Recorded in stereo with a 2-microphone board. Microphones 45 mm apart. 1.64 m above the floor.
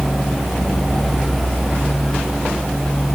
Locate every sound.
Only background noise.